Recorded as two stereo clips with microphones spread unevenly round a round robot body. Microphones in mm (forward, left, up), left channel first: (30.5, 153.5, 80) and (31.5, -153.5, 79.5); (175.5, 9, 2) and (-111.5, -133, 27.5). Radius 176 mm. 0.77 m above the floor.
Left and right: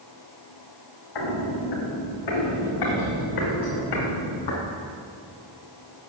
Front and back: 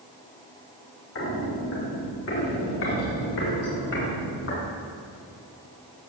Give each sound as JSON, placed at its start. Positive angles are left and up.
{"t": 1.1, "sound": "footsteps", "azimuth_deg": 90, "distance_m": 3.5}